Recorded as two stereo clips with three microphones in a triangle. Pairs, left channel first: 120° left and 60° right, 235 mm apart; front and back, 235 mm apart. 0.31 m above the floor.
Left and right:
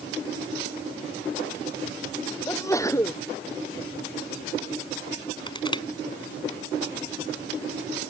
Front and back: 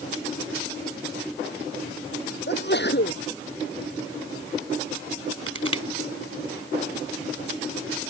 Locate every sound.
2.5 s a sneeze: 45° left
5.5 s crushing: 175° right